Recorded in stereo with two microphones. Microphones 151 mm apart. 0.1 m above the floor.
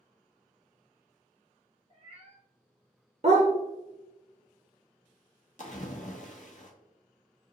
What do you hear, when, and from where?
1.9 s a cat meowing: 45° right (ahead or behind), 0.9 m
3.2 s a dog barking: 50° right (ahead or behind), 0.7 m
5.6 s a splash: 55° left (ahead or behind), 0.7 m